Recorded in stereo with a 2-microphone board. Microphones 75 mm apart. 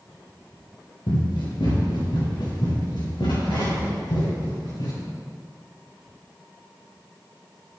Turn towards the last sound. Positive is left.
turn(degrees=65)  # may be behind; listen again after turning